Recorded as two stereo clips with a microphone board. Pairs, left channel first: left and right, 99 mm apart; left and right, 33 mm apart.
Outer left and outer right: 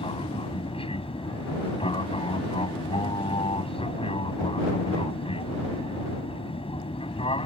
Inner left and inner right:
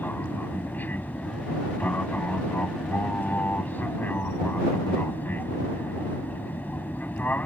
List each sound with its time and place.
0.0 s an aircraft: 65° left (ahead or behind)